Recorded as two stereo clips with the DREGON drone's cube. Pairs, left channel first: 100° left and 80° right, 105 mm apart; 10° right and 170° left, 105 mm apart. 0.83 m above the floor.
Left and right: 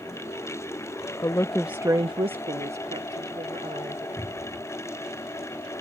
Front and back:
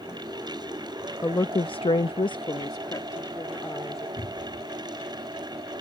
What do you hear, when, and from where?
1.2 s a woman speaking: 50° left; by 4.1 s 75° right
4.2 s a cupboard door: 165° left